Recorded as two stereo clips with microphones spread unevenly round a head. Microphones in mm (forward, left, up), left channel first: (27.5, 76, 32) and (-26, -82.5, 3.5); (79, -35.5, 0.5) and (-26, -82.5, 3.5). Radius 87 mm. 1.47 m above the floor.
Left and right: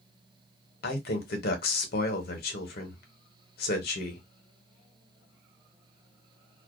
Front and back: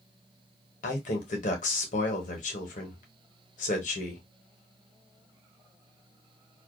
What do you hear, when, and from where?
0.8 s a man speaking: 45° left, 0.9 m